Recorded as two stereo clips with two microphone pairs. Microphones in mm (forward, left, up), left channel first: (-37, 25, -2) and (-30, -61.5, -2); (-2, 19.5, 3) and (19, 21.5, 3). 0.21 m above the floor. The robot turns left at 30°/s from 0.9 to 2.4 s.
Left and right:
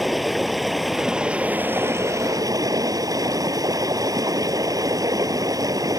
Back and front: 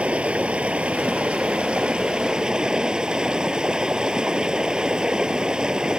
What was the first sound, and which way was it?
Running water, 5° left.